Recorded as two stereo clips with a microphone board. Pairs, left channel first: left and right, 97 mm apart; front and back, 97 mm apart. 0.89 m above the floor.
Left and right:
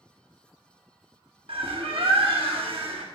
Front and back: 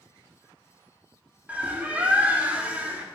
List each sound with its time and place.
1.5 s a bird: 105° right, 1.0 m